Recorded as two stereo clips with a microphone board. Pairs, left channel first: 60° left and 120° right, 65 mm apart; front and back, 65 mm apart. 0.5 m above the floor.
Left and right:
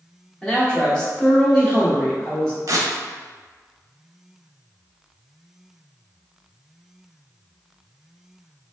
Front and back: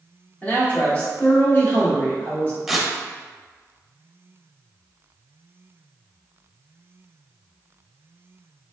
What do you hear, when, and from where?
0.4 s a man speaking: straight ahead, 1.2 m
2.7 s tearing paper: 95° right, 0.6 m